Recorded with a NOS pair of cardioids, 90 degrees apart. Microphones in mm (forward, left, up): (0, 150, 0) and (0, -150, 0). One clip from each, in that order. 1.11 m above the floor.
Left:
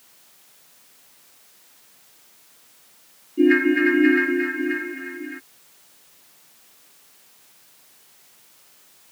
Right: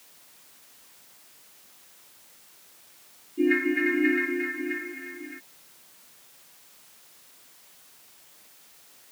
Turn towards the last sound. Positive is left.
turn(degrees=45)